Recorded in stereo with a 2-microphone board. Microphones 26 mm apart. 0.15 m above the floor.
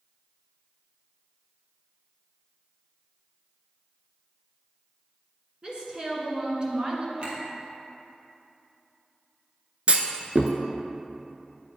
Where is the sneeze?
I don't hear a sneeze.